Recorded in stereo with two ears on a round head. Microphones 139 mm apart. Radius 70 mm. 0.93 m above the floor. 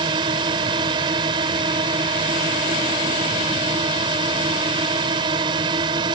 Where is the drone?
30° right (ahead or behind).